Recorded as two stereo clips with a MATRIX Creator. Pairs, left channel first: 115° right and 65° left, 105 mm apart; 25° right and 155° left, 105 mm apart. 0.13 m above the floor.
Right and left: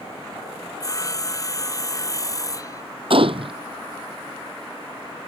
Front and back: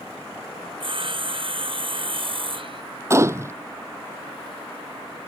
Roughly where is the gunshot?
Left.